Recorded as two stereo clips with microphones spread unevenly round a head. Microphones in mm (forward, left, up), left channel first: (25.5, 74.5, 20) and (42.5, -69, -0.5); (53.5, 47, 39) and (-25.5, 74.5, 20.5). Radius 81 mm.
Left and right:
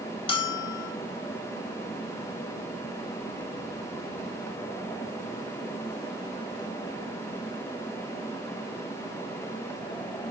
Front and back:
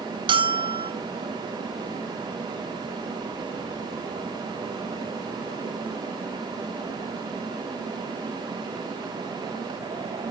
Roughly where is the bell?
Behind left.